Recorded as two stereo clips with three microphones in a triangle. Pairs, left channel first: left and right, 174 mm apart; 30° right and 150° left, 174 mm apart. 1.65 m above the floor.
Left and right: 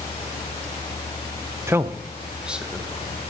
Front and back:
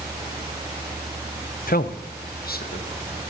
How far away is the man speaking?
About 0.6 m.